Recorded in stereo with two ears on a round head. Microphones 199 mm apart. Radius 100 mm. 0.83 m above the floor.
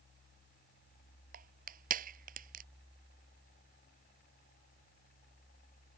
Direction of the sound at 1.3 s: 40° right (ahead or behind).